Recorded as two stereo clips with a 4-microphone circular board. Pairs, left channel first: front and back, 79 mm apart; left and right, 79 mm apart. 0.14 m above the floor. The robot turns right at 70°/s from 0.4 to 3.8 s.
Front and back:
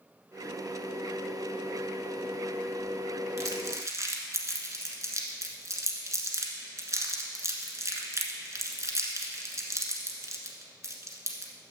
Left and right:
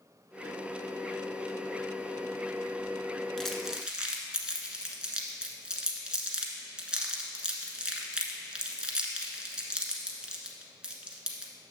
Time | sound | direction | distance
3.4 | crumpling | 165° left | 1.2 m